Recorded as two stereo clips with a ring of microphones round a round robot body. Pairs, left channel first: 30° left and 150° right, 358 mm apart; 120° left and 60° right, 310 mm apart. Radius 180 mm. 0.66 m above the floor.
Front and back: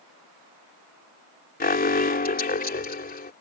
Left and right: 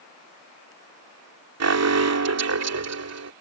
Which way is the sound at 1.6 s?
35° right.